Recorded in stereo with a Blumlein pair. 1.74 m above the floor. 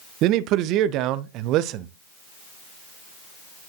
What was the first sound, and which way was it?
A man speaking, 40° right.